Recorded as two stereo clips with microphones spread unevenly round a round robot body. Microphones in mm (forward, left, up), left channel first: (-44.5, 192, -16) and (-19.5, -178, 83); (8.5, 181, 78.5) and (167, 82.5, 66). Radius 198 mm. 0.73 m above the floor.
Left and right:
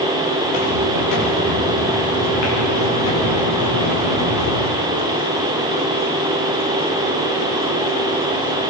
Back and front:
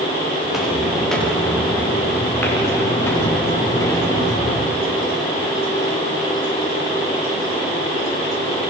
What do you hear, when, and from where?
0.4 s footsteps: 55° left, 8.5 m; by 4.7 s 80° left, 13 m